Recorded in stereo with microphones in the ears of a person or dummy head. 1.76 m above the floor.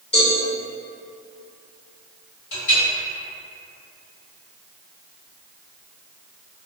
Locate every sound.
0.1 s a cowbell: 35° left (ahead or behind), 1.4 m
2.5 s a clink: 50° left (ahead or behind), 1.4 m